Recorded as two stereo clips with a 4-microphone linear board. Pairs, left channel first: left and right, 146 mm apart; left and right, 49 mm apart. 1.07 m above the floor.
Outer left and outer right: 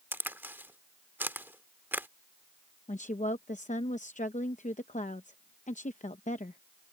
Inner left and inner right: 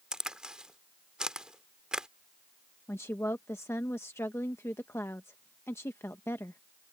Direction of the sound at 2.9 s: 55° left (ahead or behind).